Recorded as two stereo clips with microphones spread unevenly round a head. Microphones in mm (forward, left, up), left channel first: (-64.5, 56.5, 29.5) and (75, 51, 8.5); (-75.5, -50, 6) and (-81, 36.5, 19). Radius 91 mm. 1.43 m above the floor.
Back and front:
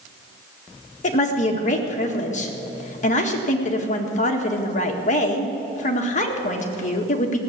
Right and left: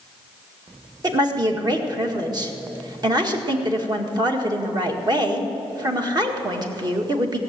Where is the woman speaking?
140° left, 1.9 m.